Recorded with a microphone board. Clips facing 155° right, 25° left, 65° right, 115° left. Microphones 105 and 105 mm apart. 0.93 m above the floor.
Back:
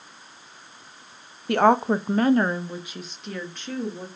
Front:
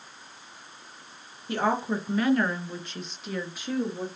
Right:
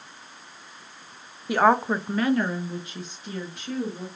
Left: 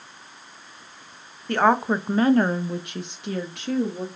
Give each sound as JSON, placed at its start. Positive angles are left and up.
{"t": 1.5, "sound": "a woman speaking", "azimuth_deg": -150, "distance_m": 0.6}